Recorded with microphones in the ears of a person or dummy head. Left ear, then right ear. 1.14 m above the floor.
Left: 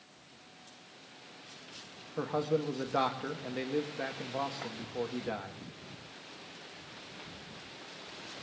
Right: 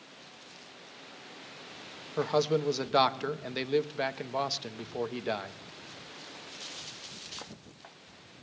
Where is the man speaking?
90° right, 0.9 m.